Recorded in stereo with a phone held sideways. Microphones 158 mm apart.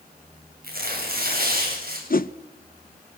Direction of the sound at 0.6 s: 70° right (ahead or behind).